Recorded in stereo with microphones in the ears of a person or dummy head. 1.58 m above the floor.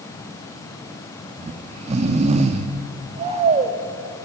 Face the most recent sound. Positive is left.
turn(degrees=-35)  # may be behind; listen again after turning